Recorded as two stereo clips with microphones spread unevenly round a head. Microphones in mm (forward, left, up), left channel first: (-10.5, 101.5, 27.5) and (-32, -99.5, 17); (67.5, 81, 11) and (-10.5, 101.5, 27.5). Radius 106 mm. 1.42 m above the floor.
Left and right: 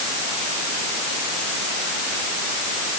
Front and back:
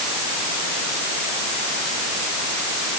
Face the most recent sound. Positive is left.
No sound to turn to.